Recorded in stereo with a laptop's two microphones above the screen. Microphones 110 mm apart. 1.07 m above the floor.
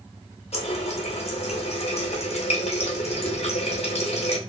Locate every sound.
0.5 s a running tap: 75° left (ahead or behind), 0.7 m